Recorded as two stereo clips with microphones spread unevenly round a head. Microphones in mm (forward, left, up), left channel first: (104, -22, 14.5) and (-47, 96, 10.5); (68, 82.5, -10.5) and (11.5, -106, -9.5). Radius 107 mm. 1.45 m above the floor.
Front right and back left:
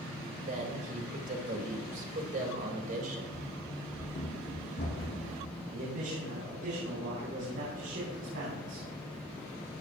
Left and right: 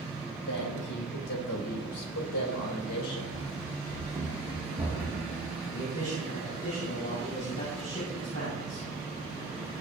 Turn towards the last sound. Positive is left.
turn(degrees=135)